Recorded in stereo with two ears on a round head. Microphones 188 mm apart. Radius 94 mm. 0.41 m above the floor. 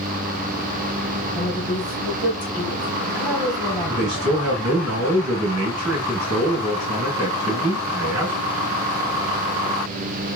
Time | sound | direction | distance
1.4 | a woman speaking | 5° right (ahead or behind) | 2.5 m
3.9 | a man speaking | 70° right (ahead or behind) | 3 m